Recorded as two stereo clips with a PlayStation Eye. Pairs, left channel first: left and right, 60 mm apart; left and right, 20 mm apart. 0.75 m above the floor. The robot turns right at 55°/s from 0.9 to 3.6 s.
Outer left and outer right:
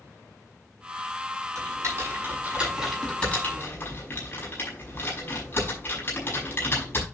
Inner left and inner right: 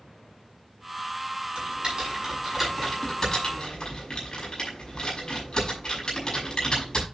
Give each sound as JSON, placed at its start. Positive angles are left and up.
{"t": 1.6, "sound": "typing on a keyboard", "side_deg": -70, "distance_m": 6.0}